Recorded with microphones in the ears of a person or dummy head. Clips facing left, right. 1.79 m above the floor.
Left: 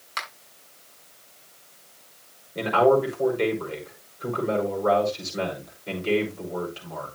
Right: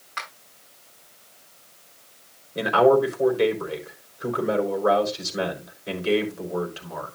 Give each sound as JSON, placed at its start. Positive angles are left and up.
{"t": 0.2, "sound": "a finger snap", "side_deg": 50, "distance_m": 7.5}
{"t": 2.5, "sound": "a man speaking", "side_deg": -10, "distance_m": 4.0}